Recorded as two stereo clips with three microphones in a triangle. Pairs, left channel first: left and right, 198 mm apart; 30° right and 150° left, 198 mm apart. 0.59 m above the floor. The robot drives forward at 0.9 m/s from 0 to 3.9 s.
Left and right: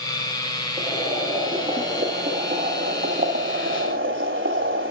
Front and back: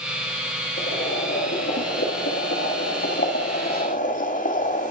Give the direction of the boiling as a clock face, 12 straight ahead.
1 o'clock.